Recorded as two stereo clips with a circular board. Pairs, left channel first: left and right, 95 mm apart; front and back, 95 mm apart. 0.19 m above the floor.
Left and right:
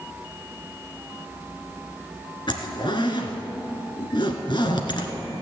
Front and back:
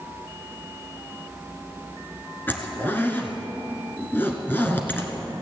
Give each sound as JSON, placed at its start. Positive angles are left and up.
{"t": 2.5, "sound": "a zipper", "azimuth_deg": 65, "distance_m": 1.6}